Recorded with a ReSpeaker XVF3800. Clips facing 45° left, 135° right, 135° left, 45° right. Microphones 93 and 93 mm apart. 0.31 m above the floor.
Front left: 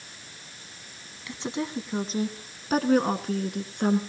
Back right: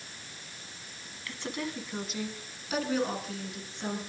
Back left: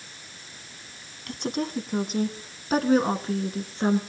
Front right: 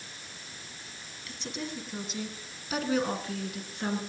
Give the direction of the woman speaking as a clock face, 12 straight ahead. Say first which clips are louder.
Front left 5 dB, back left 9 dB; 8 o'clock.